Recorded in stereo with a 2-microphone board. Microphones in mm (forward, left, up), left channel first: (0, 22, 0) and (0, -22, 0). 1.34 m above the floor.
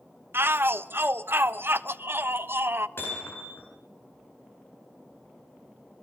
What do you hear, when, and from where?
0.3 s a shout: 55° right (ahead or behind), 1.0 m
3.0 s hammering: 60° left (ahead or behind), 9 m